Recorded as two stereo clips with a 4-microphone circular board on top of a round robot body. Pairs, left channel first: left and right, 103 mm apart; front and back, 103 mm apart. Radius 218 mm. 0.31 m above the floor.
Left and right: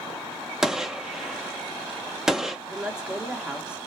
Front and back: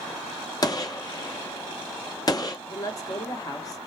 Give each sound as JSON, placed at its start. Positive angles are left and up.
{"t": 0.6, "sound": "a gunshot", "azimuth_deg": -10, "distance_m": 1.0}
{"t": 2.7, "sound": "a woman speaking", "azimuth_deg": -20, "distance_m": 1.3}